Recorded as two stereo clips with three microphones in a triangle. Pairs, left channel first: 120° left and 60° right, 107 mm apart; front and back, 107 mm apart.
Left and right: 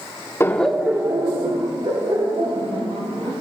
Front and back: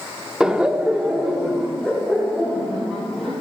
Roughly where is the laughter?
Left.